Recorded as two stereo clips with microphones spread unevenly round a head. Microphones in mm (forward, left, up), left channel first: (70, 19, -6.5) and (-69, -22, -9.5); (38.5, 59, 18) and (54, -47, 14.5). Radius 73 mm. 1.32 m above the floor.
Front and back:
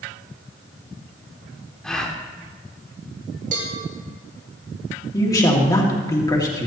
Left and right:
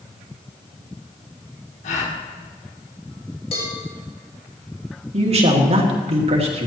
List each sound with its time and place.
1.8 s a gasp: 100° left, 1.5 m
3.5 s a cowbell: 155° left, 2.5 m
5.1 s a man speaking: 50° right, 2.5 m